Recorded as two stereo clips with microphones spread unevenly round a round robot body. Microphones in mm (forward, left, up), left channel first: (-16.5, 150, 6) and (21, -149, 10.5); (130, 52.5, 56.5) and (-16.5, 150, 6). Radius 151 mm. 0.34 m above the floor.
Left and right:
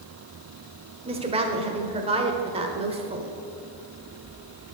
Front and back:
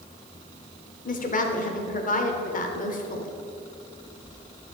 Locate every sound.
1.1 s a woman speaking: 30° right, 1.2 m